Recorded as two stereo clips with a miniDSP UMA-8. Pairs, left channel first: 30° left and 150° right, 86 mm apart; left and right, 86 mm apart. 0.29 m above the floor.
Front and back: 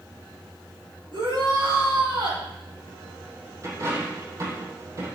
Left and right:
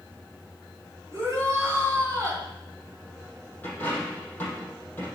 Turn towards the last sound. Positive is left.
turn(degrees=160)